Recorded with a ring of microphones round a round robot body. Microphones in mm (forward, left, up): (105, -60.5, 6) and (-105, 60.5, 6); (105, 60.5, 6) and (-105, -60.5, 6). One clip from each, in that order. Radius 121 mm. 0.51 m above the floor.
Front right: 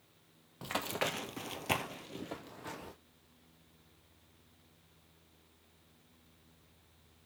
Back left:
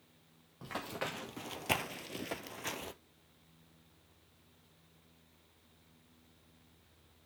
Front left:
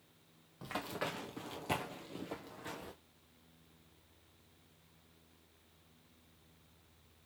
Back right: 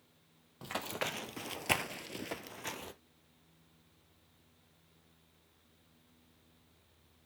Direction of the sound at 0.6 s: 85° right.